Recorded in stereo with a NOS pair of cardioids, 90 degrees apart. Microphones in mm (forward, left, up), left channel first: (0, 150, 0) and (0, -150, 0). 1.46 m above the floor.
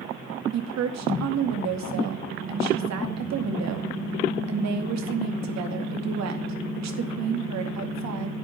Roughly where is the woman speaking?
Ahead right.